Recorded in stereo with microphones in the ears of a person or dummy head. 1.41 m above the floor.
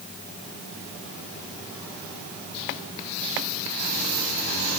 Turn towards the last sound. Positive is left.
No sound to turn to.